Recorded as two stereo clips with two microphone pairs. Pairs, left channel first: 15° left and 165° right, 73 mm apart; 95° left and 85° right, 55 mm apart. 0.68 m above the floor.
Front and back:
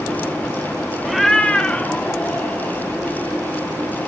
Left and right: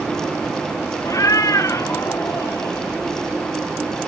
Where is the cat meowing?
110° left, 1.2 m; by 2.9 s 75° left, 4 m.